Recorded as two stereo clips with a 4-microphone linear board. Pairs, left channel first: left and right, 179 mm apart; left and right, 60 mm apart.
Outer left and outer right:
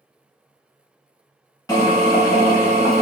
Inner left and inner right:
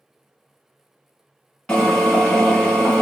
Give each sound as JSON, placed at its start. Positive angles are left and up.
{"t": 1.7, "sound": "a drill", "side_deg": 20, "distance_m": 1.5}